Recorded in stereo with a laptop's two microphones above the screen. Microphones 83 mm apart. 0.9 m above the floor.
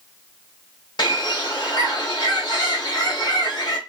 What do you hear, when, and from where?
1.0 s a bird: 70° left (ahead or behind), 1.5 m